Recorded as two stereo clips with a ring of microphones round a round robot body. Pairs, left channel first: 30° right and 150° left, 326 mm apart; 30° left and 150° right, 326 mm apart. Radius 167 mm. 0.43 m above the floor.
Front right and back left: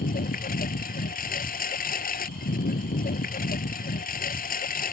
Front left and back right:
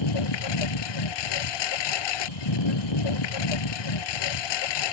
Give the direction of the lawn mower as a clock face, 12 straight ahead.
11 o'clock.